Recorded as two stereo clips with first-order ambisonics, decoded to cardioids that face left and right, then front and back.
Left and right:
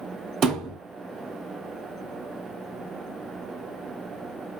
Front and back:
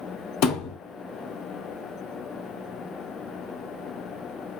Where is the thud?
30° right, 1.7 m.